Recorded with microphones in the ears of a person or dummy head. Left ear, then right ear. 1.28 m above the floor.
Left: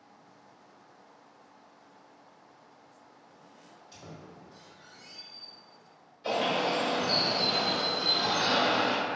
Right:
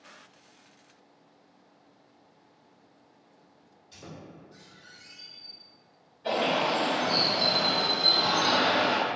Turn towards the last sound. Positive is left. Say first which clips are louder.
# right 2 dB
turn(degrees=80)